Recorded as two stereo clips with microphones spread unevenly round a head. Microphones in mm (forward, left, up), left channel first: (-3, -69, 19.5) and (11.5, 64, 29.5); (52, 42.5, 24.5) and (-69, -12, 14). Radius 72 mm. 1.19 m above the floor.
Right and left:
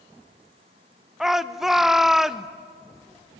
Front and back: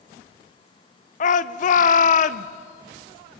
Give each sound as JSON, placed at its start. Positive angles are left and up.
{"t": 1.2, "sound": "a shout", "azimuth_deg": -5, "distance_m": 0.6}